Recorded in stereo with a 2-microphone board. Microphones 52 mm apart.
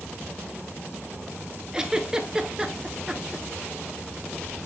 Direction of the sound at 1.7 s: 15° right (ahead or behind).